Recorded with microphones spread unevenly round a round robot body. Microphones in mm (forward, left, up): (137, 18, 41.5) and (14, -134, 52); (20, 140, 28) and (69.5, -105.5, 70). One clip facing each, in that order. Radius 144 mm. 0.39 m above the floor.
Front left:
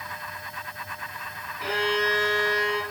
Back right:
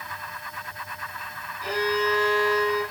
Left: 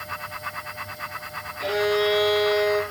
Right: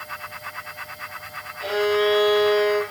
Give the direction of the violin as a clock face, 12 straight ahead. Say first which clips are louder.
Back right 1 dB, right 2 dB; 11 o'clock.